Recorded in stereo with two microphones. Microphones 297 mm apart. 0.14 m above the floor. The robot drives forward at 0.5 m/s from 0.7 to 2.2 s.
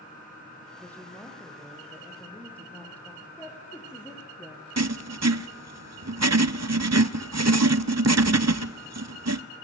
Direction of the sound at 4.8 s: 60° right (ahead or behind).